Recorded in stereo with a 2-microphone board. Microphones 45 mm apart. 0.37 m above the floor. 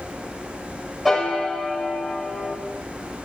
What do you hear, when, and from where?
1.1 s a piano: centre (ahead or behind), 1.8 m